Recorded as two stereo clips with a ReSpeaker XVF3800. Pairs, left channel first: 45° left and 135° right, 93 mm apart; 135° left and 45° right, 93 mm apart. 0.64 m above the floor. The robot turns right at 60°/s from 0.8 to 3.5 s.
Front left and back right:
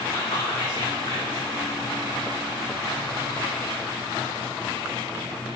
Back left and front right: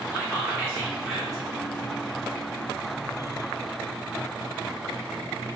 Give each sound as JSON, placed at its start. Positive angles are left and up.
{"t": 0.1, "sound": "whispering", "azimuth_deg": 20, "distance_m": 1.4}